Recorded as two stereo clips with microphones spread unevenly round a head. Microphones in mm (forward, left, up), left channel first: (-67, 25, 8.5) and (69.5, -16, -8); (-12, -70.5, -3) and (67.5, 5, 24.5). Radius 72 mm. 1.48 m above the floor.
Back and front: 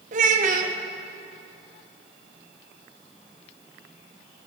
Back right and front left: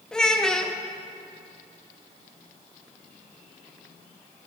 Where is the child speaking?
40° right, 0.8 m.